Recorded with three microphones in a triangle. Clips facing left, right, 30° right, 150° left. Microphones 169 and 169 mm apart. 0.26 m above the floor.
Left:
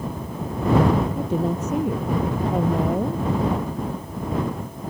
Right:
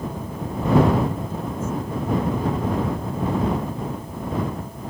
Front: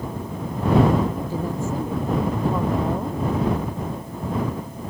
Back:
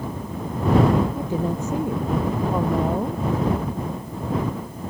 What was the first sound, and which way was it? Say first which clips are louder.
A woman speaking: left 5 dB, back 2 dB; 80° left.